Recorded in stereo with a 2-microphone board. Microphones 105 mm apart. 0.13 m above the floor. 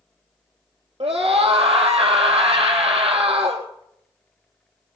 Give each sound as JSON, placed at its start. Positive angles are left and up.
{"t": 1.0, "sound": "a scream", "side_deg": -75, "distance_m": 4.0}